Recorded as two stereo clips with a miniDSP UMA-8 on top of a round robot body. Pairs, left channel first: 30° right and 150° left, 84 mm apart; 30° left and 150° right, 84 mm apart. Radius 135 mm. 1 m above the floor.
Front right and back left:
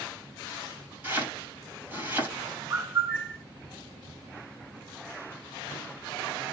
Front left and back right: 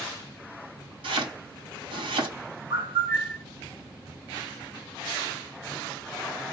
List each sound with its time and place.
1.0 s chopping: 140° right, 3 m
2.7 s a bird: 150° right, 3.5 m